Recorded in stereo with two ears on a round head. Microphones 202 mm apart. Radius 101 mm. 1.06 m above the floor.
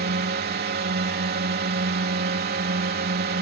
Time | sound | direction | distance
0.0 | a drone | 45° right (ahead or behind) | ?